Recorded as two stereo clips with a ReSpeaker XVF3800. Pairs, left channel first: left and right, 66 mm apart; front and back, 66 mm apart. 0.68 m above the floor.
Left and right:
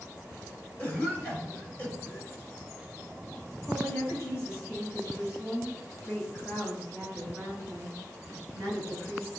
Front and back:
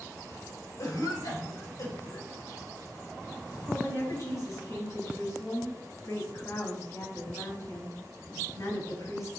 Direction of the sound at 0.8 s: 20° left.